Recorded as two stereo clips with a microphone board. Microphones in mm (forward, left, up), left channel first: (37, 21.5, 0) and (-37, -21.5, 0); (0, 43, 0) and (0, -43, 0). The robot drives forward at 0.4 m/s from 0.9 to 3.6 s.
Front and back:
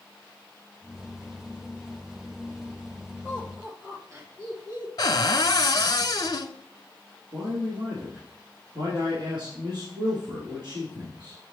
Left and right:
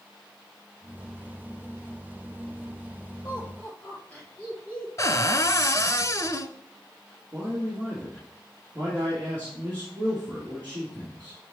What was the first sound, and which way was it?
Laughter, 160° left.